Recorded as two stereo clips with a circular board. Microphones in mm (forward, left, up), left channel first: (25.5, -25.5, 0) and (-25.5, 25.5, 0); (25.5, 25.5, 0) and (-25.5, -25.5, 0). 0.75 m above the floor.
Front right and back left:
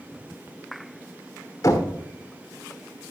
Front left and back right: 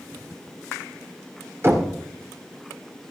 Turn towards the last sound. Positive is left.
turn(degrees=-85)